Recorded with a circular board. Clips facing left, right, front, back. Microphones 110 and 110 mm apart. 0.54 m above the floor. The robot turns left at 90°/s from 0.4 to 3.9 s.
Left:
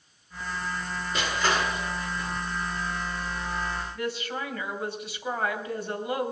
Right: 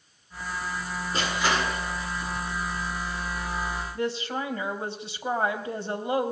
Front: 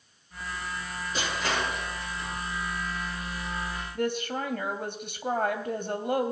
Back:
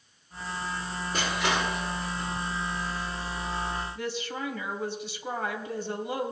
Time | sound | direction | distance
1.1 | crushing | 140° right | 8.5 m
4.0 | a woman speaking | 30° right | 3 m